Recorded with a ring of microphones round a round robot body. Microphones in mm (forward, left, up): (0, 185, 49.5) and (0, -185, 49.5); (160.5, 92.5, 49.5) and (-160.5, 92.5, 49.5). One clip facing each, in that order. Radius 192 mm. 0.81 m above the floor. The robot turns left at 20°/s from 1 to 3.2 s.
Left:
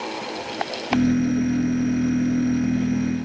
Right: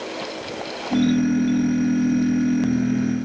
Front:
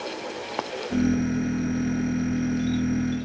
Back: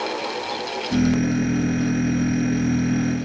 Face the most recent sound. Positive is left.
No sound to turn to.